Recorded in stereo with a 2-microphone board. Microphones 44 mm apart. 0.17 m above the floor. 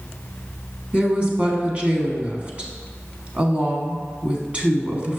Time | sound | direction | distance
0.9 | a woman speaking | 30° right (ahead or behind) | 1.1 m